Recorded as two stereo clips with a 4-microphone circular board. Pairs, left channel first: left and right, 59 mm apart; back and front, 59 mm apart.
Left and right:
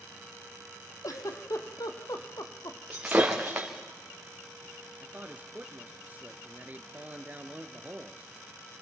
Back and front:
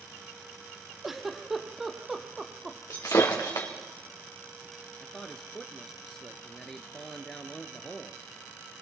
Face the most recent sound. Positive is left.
turn(degrees=-105)